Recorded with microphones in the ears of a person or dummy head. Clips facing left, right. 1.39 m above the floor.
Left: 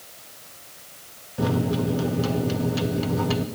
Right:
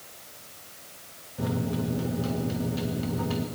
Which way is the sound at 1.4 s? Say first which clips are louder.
Left 6 dB; 65° left (ahead or behind).